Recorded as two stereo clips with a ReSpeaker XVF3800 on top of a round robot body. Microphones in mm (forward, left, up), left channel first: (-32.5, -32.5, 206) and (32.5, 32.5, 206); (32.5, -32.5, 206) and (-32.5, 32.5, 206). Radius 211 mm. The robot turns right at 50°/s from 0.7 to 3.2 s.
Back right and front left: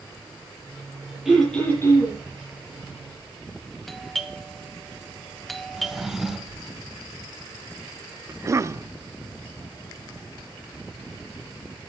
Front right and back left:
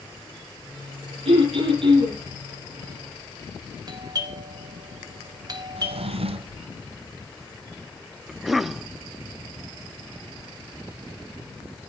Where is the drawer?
130° left, 1.3 m.